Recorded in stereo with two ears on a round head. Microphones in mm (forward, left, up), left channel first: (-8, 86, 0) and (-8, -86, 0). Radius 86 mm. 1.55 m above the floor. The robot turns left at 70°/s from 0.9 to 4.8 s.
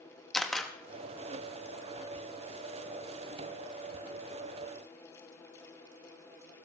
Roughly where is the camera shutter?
Centre.